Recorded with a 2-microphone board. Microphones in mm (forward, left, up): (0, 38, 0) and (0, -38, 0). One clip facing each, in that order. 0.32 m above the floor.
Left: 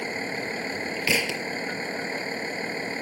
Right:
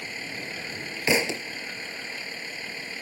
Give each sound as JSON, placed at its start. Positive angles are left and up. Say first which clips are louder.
{"t": 0.0, "sound": "a vehicle", "louder": "left 6 dB", "side_deg": 35}
{"t": 1.1, "sound": "a thud", "louder": "right 3 dB", "side_deg": -25}